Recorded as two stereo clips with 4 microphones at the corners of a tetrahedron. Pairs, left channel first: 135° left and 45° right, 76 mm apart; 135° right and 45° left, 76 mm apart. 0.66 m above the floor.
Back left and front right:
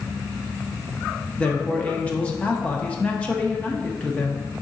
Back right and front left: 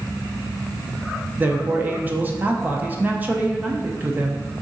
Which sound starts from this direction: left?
A man speaking, at 1.4 s.